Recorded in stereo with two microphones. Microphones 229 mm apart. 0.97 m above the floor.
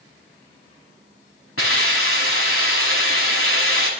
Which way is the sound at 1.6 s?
85° left.